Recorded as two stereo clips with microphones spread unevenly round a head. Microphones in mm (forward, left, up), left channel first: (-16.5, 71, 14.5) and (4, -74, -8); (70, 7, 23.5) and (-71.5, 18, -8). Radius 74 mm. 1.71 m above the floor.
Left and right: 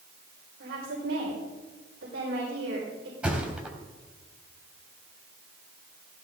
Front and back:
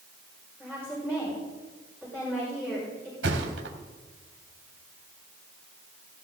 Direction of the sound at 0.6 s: 90° right.